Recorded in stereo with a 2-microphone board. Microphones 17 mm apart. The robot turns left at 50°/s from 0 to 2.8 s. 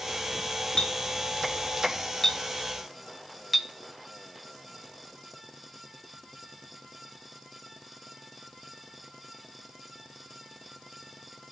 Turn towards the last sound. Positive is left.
turn(degrees=10)  # may be behind; listen again after turning